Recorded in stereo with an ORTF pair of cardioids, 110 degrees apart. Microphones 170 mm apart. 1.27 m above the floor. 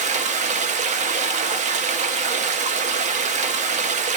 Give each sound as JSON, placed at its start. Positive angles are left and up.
{"t": 0.0, "sound": "running water", "azimuth_deg": -50, "distance_m": 0.7}